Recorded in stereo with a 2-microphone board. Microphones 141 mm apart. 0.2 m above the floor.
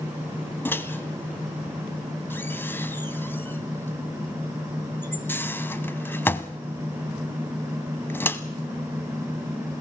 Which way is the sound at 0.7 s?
15° left (ahead or behind).